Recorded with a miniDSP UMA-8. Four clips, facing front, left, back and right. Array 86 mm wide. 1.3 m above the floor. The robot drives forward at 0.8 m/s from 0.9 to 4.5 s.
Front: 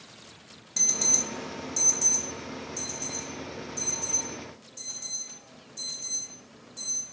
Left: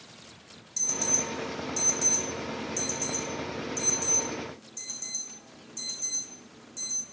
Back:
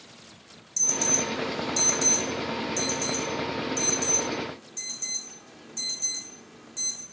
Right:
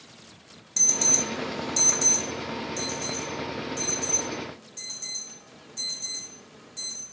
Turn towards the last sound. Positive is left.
turn(degrees=-170)